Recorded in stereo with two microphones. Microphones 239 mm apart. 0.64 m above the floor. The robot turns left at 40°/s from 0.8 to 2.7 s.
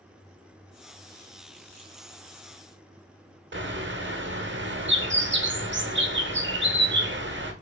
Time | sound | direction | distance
3.5 | a bird | 50° right (ahead or behind) | 0.8 m